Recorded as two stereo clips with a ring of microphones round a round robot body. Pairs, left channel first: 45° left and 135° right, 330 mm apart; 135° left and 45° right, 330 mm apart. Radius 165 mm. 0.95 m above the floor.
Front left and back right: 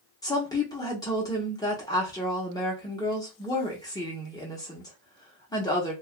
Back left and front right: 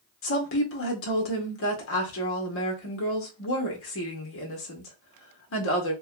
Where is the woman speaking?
120° left, 0.9 m.